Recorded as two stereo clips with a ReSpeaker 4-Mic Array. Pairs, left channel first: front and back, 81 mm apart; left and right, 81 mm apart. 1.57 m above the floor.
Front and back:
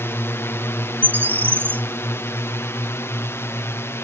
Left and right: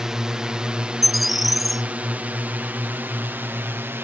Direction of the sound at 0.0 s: 10° right.